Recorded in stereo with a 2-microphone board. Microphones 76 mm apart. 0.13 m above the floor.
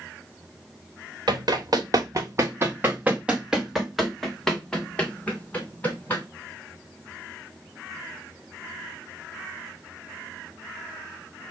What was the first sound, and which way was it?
Running footsteps, 65° right (ahead or behind).